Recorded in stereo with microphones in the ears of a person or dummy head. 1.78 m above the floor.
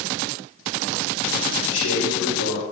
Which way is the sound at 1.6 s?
70° left (ahead or behind).